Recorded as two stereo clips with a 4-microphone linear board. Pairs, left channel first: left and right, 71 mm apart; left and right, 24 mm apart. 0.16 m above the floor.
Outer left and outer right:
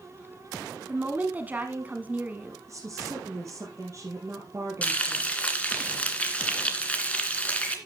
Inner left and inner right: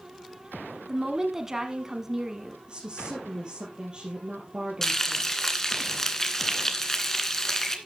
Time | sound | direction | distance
0.9 | a woman speaking | 25° right (ahead or behind) | 1.3 m
2.7 | a woman speaking | 45° right (ahead or behind) | 4 m
4.8 | frying | 20° left (ahead or behind) | 2.5 m